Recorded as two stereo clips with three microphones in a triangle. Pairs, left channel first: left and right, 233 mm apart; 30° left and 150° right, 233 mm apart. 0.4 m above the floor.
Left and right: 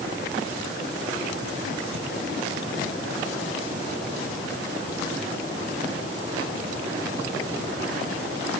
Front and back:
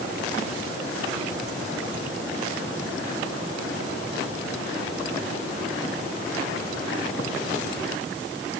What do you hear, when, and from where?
Only background noise.